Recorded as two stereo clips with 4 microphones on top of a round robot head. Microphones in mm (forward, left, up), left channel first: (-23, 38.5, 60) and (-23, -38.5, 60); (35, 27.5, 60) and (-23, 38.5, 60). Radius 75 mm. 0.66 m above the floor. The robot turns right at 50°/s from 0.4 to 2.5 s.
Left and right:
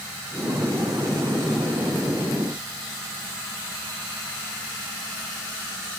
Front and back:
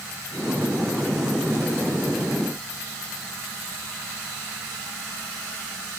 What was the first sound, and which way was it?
Only background noise.